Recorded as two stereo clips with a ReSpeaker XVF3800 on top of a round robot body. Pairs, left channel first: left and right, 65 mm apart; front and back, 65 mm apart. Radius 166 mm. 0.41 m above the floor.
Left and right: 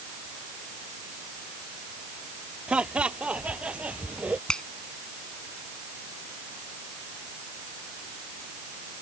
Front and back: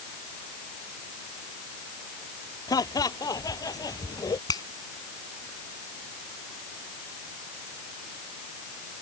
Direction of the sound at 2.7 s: 15° right.